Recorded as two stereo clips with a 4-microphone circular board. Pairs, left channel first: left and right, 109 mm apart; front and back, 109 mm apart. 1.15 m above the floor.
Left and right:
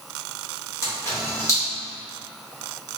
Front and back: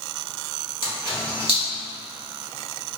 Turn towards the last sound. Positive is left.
turn(degrees=155)